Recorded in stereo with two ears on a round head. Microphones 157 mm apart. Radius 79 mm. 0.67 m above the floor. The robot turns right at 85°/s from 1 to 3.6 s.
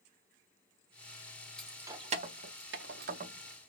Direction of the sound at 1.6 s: 5° left (ahead or behind).